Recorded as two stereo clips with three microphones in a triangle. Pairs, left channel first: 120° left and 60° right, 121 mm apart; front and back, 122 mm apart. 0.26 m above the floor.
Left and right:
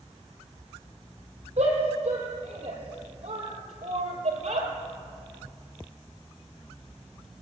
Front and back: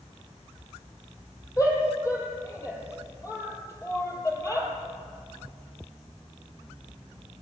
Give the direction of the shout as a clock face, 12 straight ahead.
2 o'clock.